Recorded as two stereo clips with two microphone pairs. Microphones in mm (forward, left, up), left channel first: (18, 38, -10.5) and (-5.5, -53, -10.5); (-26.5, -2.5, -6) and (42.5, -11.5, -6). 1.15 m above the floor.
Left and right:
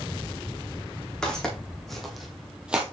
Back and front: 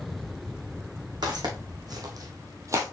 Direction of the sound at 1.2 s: 5° right.